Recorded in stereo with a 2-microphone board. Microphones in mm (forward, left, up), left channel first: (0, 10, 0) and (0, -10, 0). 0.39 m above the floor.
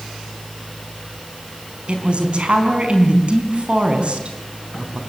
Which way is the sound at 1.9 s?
55° right (ahead or behind).